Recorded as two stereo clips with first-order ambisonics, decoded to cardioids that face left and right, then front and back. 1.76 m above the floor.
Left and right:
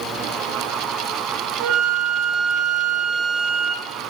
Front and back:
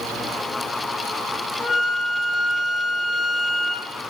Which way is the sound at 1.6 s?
80° right.